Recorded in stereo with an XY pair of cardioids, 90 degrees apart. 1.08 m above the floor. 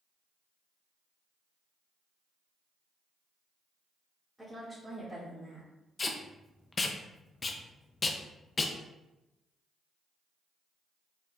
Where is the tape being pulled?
35° left, 0.6 m.